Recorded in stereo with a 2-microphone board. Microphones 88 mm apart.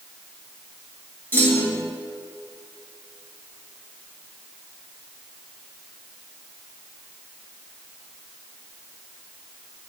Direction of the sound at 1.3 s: 20° left (ahead or behind).